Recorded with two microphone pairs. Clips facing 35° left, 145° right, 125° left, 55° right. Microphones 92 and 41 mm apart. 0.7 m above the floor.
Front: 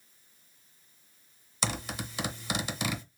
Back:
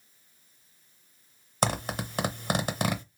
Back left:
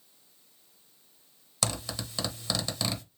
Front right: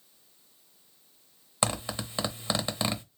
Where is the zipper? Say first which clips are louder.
Back 6 dB, front right 4 dB; 115° right, 0.8 m.